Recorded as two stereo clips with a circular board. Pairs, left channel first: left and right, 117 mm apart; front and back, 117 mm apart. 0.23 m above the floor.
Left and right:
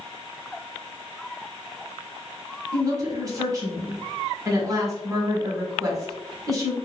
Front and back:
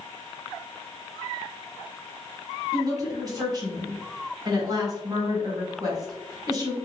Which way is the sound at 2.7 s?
140° right.